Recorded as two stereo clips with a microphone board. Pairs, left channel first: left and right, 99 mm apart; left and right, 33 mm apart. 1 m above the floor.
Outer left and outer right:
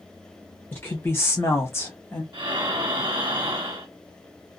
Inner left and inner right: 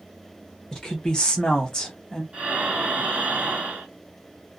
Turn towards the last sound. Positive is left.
turn(degrees=-50)  # may be behind; listen again after turning